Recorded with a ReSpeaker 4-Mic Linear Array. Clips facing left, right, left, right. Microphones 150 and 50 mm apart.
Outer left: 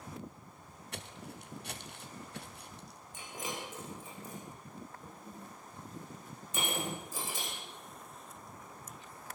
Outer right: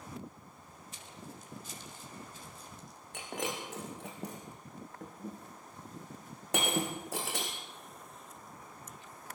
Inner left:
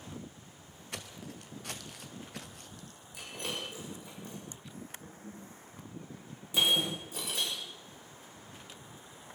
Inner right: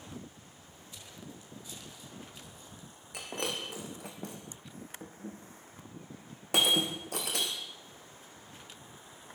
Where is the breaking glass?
75° right (ahead or behind), 5 m.